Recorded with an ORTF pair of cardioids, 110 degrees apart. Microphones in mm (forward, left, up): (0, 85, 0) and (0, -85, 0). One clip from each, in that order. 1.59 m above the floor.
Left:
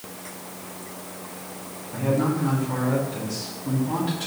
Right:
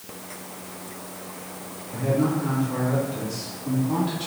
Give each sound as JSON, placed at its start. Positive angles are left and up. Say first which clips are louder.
{"t": 1.9, "sound": "a man speaking", "louder": "even", "azimuth_deg": 0, "distance_m": 3.0}